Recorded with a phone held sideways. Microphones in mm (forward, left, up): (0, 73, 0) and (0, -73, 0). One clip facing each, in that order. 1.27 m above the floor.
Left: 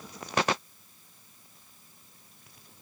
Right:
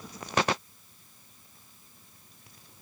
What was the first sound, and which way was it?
Only background noise.